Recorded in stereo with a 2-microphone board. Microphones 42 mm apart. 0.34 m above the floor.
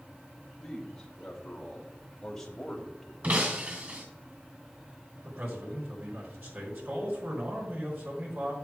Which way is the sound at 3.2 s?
35° right (ahead or behind).